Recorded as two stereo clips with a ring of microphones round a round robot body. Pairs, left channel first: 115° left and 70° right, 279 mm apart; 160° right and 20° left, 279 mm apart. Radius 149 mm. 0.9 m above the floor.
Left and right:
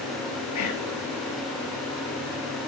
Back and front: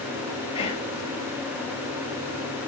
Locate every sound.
0.6 s whispering: 135° left, 2.5 m